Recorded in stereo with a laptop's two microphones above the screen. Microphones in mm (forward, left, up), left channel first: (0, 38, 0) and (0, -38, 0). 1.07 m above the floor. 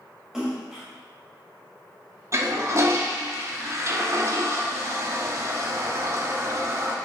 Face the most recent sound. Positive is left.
turn(degrees=-40)  # may be behind; listen again after turning